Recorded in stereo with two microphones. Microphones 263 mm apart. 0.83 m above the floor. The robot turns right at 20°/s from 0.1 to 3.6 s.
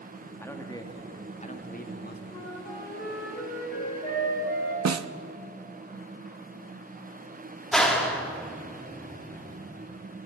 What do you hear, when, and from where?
0.4 s a man speaking: 10° left, 1.4 m; by 2.2 s 45° left, 1.4 m
2.3 s a flute: 15° left (ahead or behind), 6.5 m; by 4.8 s 40° left (ahead or behind), 6.5 m
4.8 s a snare drum: 80° right, 0.5 m
7.7 s a clap: centre (ahead or behind), 1.8 m